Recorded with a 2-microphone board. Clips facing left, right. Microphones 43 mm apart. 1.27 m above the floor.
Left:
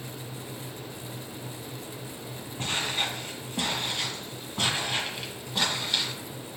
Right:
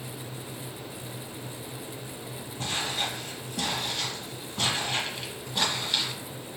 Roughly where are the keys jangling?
I don't hear keys jangling.